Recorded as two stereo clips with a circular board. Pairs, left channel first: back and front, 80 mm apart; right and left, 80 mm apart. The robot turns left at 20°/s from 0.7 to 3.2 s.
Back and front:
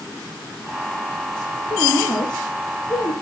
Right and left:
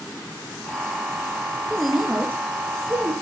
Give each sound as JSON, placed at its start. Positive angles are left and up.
{"t": 1.7, "sound": "a woman speaking", "azimuth_deg": 170, "distance_m": 3.5}